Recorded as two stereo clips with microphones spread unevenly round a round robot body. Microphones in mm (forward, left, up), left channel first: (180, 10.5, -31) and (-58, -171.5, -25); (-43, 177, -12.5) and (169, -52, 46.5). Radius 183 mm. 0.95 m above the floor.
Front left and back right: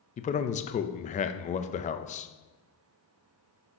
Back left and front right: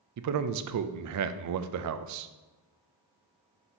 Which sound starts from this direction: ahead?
A man speaking, at 0.2 s.